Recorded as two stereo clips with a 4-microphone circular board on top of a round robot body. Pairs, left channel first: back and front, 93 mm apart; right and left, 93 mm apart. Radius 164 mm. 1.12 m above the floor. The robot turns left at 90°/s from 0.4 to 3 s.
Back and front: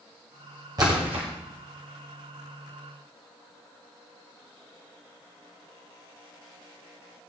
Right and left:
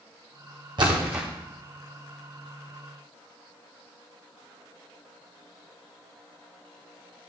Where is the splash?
50° left, 1.5 m; by 1.3 s 5° left, 1.5 m.